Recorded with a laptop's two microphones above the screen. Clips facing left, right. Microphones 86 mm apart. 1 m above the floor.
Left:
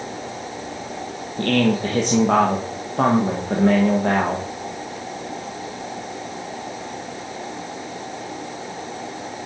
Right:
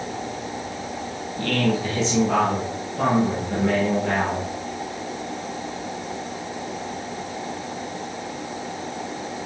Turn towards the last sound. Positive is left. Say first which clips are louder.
# left 4 dB
turn(degrees=50)  # may be behind; listen again after turning